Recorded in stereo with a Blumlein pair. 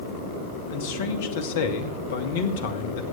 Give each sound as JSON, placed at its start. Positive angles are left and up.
{"t": 0.7, "sound": "a man speaking", "azimuth_deg": 55, "distance_m": 1.2}